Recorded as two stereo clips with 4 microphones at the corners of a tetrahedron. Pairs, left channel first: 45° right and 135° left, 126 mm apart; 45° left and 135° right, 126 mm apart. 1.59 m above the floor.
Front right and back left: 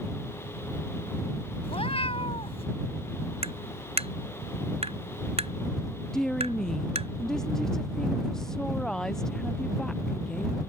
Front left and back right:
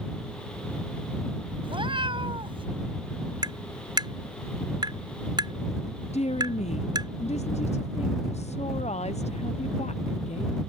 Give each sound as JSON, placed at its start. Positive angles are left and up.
{"t": 1.6, "sound": "a cat meowing", "azimuth_deg": -85}
{"t": 3.4, "sound": "tapping", "azimuth_deg": 170}
{"t": 6.1, "sound": "a woman speaking", "azimuth_deg": 40}